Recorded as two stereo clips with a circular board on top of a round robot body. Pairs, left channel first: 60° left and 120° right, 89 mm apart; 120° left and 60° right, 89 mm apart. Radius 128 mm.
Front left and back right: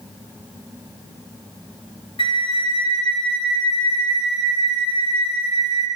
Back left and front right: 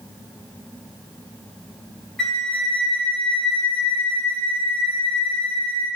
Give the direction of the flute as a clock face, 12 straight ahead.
11 o'clock.